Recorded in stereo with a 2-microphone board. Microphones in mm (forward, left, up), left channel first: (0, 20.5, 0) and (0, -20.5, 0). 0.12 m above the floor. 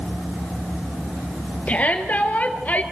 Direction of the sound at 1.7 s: 35° left (ahead or behind).